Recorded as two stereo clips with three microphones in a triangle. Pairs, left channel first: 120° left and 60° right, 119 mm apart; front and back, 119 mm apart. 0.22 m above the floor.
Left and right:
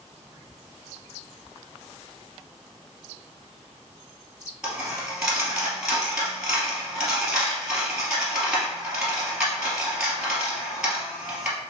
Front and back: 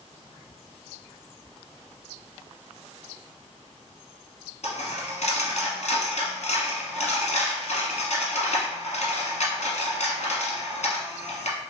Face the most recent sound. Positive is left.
turn(degrees=20)